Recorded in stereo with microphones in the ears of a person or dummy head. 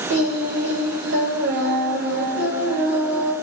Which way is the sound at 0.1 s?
60° right (ahead or behind).